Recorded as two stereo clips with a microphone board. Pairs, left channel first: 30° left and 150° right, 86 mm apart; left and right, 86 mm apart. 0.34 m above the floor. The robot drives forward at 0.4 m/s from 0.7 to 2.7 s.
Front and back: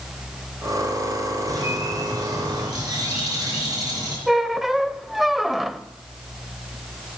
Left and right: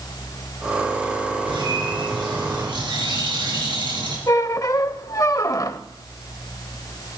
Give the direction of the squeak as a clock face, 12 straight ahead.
8 o'clock.